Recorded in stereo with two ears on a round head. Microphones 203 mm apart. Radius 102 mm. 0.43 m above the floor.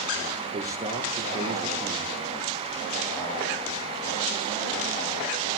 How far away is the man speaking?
About 8.5 m.